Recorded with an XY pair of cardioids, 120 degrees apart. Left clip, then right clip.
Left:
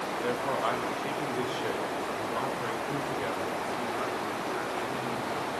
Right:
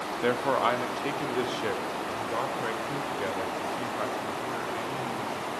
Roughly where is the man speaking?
Ahead right.